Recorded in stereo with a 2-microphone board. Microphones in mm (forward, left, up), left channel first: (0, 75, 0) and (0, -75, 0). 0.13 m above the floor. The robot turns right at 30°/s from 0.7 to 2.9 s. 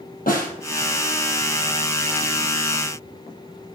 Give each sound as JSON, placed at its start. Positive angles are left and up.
{"t": 0.3, "sound": "a snare drum", "side_deg": 70, "distance_m": 3.0}